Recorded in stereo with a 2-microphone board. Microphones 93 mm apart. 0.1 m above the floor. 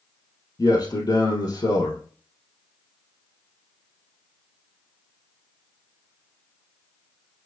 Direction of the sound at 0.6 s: 50° left (ahead or behind).